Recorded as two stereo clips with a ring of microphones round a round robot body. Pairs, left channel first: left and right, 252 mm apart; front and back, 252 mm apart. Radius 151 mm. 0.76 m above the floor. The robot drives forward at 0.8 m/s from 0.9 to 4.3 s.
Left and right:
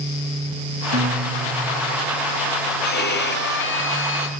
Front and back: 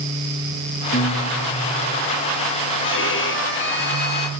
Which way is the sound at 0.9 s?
55° right.